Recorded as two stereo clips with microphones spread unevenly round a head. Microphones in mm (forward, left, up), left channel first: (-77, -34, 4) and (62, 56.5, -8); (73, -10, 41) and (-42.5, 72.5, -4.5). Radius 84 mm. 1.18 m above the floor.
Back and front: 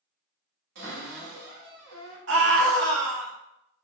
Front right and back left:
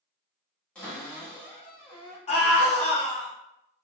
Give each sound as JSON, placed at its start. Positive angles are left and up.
{"t": 0.8, "sound": "a cupboard door", "azimuth_deg": 40, "distance_m": 1.8}
{"t": 2.3, "sound": "a scream", "azimuth_deg": 10, "distance_m": 1.4}